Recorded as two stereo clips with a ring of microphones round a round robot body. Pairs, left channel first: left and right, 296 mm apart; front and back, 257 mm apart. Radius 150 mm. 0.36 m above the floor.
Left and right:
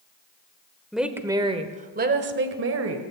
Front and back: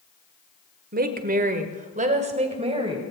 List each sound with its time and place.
0.9 s a woman speaking: straight behind, 1.5 m; by 3.0 s 110° right, 2 m